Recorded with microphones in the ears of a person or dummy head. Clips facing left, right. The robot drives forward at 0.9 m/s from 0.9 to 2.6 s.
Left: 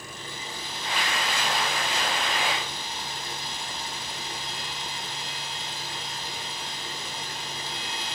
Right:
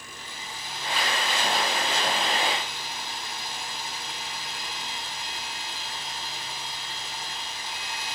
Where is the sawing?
80° left, 5 m; by 8.1 s 70° left (ahead or behind), 5 m.